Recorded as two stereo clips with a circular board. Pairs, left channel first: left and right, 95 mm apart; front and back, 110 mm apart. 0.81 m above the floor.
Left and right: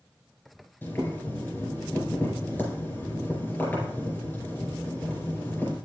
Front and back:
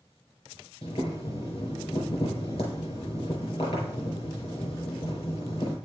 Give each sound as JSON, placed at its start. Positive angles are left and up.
{"t": 0.8, "sound": "boiling", "azimuth_deg": 25, "distance_m": 4.5}